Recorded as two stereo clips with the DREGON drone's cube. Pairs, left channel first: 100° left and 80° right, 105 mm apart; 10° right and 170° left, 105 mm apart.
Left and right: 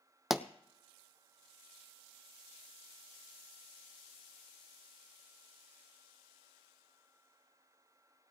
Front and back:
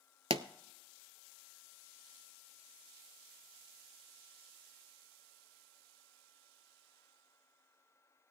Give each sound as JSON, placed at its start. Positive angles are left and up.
{"t": 0.3, "sound": "a pop", "azimuth_deg": -165, "distance_m": 0.5}